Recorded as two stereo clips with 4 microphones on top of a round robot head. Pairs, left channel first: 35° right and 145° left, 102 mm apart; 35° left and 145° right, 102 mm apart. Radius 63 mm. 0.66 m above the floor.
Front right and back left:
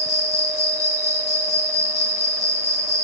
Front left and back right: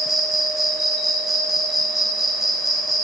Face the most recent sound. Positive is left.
turn(degrees=-55)